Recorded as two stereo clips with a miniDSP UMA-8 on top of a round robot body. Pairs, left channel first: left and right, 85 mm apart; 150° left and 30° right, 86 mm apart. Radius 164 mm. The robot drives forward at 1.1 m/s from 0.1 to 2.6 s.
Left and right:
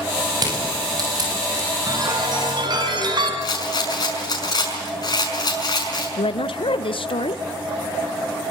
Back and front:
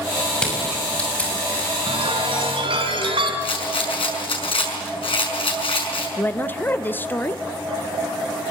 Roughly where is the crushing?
Behind right.